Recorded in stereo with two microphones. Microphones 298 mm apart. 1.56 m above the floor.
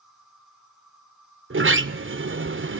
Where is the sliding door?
40° right (ahead or behind), 0.6 m.